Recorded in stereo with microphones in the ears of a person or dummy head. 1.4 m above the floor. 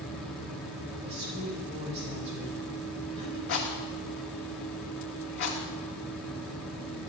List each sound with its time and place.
0.0 s a fan: 5° left (ahead or behind), 1.3 m
1.0 s a woman speaking: 35° right (ahead or behind), 6 m
3.5 s a rattle: 55° left (ahead or behind), 1.4 m